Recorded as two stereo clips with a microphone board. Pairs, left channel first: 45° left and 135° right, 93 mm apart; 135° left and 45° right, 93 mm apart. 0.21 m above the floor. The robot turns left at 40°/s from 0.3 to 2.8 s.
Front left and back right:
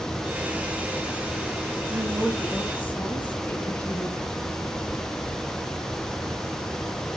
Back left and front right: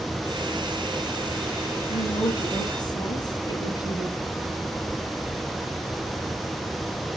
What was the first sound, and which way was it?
A woman speaking, 150° left.